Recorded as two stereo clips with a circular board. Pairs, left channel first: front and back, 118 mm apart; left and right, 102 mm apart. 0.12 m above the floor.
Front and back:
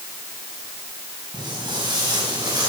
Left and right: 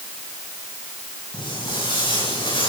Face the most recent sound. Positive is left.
turn(degrees=120)